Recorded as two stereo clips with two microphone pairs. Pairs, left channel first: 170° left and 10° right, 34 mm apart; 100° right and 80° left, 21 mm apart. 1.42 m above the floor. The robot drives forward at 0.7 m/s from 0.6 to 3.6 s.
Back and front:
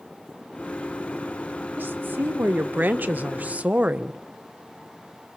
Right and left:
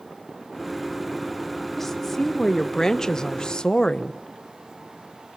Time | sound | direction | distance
1.8 | a woman speaking | 25° right | 2.0 m